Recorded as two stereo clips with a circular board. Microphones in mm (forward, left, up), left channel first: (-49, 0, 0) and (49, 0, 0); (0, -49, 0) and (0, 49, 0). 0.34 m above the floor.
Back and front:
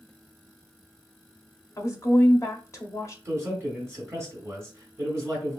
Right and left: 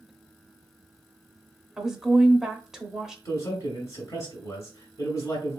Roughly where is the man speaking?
Ahead right.